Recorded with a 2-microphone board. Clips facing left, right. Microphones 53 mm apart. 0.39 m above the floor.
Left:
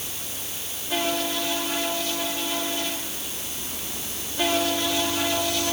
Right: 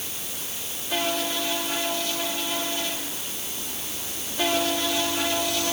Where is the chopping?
No chopping in this recording.